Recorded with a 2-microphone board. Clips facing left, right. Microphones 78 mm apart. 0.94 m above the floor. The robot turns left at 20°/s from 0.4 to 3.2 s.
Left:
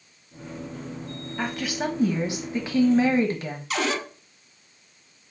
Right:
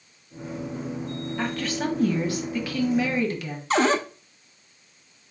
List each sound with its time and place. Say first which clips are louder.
1.4 s a woman speaking: even; 175° left, 1.0 m; by 3.6 s 140° left, 1.0 m
3.7 s a cupboard door: right 6 dB; 35° right (ahead or behind), 0.5 m